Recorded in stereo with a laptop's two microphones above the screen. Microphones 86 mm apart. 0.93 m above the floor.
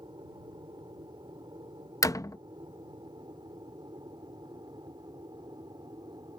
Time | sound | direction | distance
0.0 | an aircraft | 65° right (ahead or behind) | ?
2.0 | a door slam | 40° left (ahead or behind) | ?